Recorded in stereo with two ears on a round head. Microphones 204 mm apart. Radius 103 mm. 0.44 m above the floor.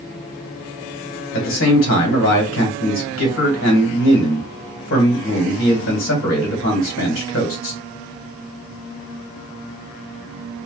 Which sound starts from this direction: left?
A man speaking, at 1.3 s.